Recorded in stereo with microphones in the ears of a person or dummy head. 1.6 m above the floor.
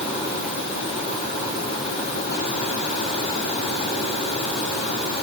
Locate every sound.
Only background noise.